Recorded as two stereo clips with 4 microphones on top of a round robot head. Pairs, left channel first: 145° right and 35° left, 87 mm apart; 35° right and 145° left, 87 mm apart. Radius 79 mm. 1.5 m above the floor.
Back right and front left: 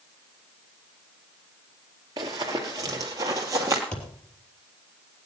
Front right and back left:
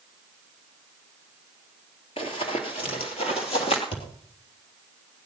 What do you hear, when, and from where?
2.2 s running footsteps: 10° right, 2 m; by 3.8 s 20° right, 3 m
3.9 s a thud: 65° right, 3 m